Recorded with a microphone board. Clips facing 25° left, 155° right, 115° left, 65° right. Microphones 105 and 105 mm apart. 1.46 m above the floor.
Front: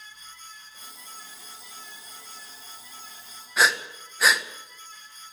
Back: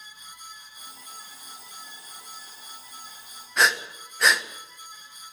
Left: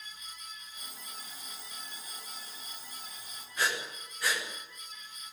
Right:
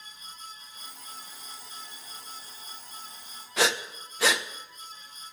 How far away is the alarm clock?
About 9.5 m.